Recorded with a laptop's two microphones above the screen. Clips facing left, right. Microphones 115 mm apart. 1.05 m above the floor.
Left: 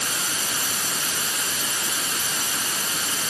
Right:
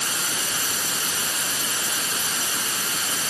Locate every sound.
Only background noise.